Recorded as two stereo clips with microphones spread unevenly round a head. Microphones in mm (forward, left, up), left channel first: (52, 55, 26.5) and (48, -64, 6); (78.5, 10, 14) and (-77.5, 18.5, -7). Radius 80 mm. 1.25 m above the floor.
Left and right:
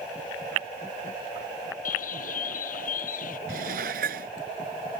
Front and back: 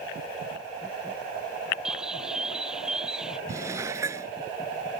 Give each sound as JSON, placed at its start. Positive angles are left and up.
{"t": 1.9, "sound": "a bird", "azimuth_deg": 90}
{"t": 3.5, "sound": "dishes clattering", "azimuth_deg": -110}